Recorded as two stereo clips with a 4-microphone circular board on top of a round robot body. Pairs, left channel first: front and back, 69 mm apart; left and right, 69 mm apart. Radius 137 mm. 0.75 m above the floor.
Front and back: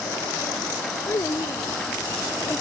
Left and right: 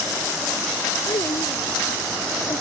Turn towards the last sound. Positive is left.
turn(degrees=55)